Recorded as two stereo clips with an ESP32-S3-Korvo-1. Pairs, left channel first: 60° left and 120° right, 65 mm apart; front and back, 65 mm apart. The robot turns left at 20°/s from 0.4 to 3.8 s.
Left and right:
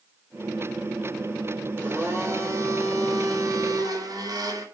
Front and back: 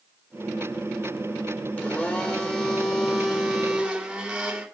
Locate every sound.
1.8 s a blender: 60° right, 3 m; by 4.7 s 100° right, 3 m